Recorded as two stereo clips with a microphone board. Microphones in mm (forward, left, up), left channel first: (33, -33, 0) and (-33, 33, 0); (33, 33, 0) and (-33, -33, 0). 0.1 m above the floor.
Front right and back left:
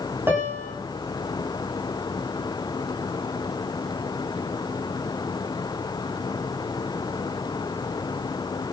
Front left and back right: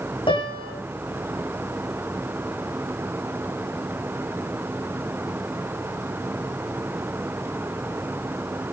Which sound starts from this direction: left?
A piano, at 0.3 s.